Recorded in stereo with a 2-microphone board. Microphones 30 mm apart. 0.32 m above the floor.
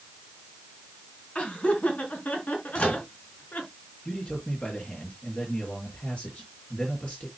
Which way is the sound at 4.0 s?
40° left (ahead or behind).